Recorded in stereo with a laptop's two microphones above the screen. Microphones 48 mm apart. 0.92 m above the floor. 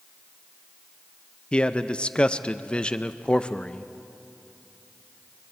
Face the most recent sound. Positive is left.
turn(degrees=20)  # may be behind; listen again after turning